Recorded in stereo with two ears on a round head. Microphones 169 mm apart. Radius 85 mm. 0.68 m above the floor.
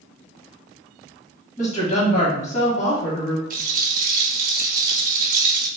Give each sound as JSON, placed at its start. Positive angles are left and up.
{"t": 1.6, "sound": "a woman speaking", "side_deg": 40, "distance_m": 1.5}
{"t": 3.5, "sound": "a rattle", "side_deg": -45, "distance_m": 0.8}